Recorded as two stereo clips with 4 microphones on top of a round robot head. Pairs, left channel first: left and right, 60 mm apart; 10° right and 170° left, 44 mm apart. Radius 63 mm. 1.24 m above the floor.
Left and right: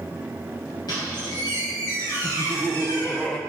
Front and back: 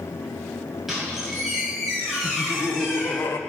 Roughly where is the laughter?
Ahead.